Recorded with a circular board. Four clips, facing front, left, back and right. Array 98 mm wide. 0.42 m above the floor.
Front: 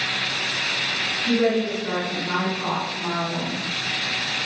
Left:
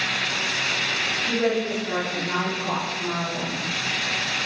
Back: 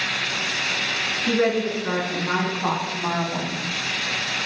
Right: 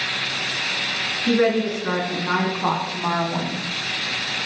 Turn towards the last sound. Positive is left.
turn(degrees=-110)